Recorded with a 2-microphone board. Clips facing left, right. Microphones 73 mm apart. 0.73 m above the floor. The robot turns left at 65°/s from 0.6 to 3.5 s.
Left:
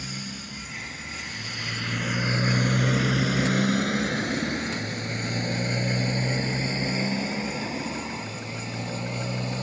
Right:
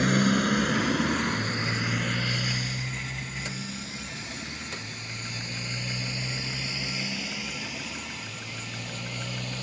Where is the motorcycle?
60° right (ahead or behind); by 9.7 s 25° left (ahead or behind).